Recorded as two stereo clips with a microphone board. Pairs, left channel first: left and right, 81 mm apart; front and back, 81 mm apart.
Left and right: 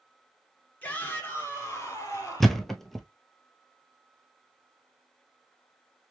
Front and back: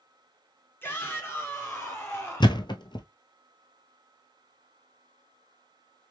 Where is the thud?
5° left, 0.7 m.